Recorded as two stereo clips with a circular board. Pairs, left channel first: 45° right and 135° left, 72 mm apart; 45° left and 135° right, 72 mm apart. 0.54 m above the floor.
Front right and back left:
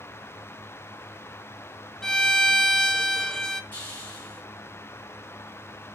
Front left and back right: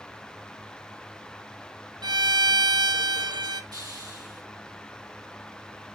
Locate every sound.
2.0 s a violin: 125° right, 0.6 m
3.7 s a hiss: 115° right, 4 m